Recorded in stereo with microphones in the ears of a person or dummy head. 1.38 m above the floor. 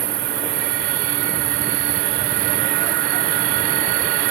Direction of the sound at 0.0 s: 20° right (ahead or behind).